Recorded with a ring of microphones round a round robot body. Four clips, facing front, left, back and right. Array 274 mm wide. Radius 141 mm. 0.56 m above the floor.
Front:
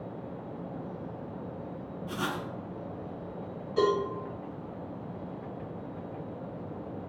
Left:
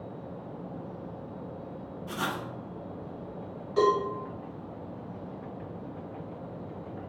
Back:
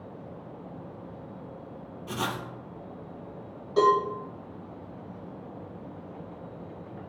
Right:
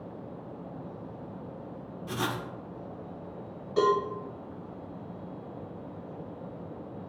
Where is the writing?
150° right, 0.8 m.